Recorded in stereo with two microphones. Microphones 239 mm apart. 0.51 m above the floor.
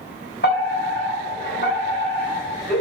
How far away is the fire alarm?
About 5.5 m.